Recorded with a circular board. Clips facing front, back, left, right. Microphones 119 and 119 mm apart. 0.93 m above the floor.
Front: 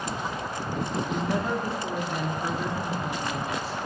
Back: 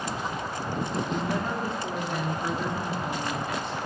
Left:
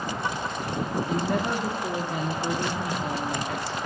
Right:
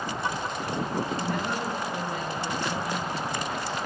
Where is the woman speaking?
85° left, 1.7 m.